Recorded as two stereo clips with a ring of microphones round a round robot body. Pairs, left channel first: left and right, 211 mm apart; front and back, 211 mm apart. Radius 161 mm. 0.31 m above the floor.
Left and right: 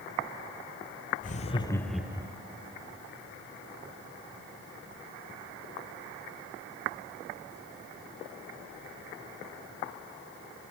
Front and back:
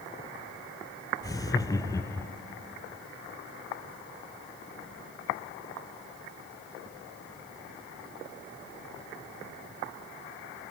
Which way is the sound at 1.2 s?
65° left.